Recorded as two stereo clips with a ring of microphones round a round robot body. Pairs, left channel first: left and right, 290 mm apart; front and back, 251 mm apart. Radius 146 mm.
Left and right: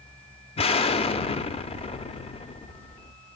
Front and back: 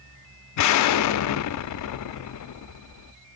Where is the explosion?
20° left, 0.6 m.